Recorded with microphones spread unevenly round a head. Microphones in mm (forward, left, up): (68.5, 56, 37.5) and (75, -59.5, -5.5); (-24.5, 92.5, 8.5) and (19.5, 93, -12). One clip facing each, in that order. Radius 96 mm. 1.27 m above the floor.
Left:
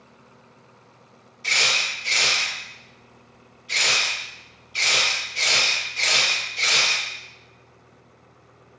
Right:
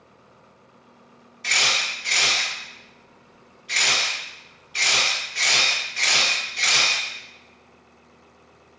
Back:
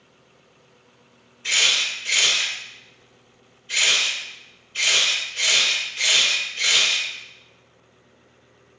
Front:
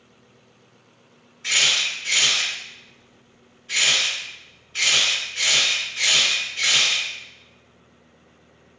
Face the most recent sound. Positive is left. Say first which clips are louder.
# right 1 dB, even
turn(degrees=-45)